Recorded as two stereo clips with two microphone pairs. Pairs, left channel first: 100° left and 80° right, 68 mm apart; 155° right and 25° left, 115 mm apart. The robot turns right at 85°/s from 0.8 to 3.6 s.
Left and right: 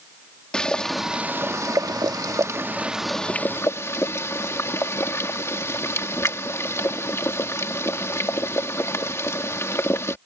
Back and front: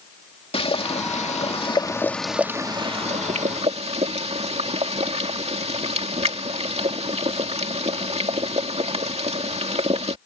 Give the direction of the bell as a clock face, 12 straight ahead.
I don't hear a bell.